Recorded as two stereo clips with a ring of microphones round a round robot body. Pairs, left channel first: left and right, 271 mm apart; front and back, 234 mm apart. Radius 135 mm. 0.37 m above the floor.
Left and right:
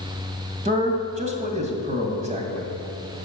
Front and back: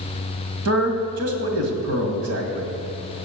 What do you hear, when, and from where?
0.7 s a man speaking: 155° right, 2.0 m